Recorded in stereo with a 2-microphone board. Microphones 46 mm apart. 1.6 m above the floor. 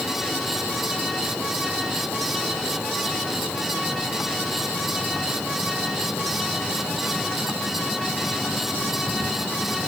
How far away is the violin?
I don't hear a violin.